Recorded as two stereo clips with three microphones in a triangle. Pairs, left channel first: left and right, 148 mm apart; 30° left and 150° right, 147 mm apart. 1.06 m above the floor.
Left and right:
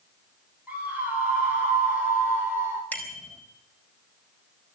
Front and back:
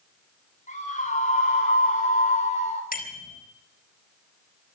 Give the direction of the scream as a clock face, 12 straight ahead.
12 o'clock.